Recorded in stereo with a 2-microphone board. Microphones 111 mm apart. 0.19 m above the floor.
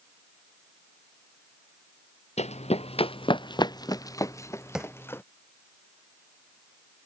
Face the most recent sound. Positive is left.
turn(degrees=-5)  # may be behind; listen again after turning